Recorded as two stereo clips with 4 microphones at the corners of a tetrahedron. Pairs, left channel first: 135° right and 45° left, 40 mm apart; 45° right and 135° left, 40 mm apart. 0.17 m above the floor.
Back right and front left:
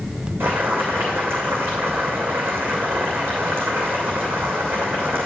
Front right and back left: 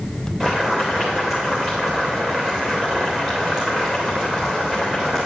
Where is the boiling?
60° left, 3 m.